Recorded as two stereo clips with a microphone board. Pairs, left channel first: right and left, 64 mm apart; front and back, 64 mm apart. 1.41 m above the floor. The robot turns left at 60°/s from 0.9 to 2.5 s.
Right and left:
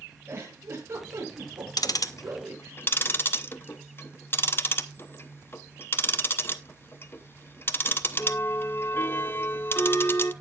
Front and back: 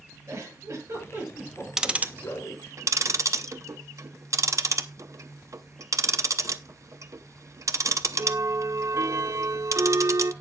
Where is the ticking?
100° right, 0.8 m; by 10.3 s 145° right, 0.8 m.